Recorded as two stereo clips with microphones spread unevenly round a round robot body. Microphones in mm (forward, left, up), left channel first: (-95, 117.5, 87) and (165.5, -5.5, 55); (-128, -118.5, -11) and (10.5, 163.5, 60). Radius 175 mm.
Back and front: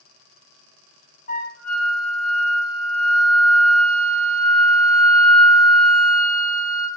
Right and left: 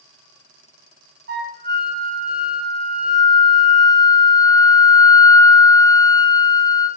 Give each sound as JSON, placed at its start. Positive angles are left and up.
{"t": 1.3, "sound": "a flute", "azimuth_deg": 115, "distance_m": 0.9}